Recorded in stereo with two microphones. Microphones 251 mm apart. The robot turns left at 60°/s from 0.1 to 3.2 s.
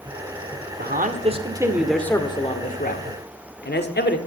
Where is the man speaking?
115° right, 1.6 m; by 4.2 s 100° left, 1.6 m.